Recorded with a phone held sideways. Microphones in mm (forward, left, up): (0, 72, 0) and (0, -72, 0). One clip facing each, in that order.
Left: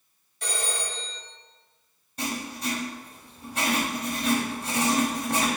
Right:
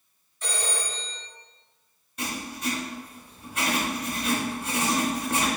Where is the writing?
35° left (ahead or behind), 0.8 m.